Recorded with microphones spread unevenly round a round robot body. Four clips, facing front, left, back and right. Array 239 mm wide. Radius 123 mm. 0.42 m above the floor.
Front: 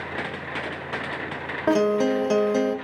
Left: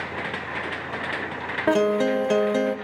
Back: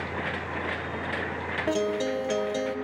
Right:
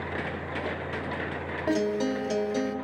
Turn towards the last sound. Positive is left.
turn(degrees=55)